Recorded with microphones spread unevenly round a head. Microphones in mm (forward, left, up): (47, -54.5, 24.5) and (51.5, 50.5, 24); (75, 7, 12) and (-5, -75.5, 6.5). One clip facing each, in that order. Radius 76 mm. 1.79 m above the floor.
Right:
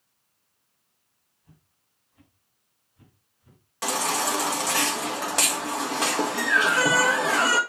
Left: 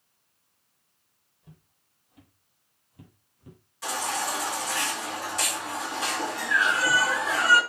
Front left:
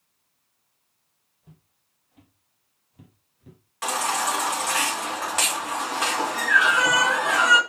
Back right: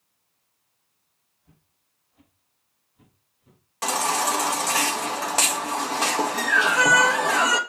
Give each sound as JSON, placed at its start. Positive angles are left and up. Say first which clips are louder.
{"t": 1.4, "sound": "footsteps", "louder": "left 4 dB, front left 7 dB", "azimuth_deg": 80, "distance_m": 4.0}
{"t": 3.8, "sound": "a baby crying", "louder": "right 4 dB, back right 1 dB", "azimuth_deg": -80, "distance_m": 2.0}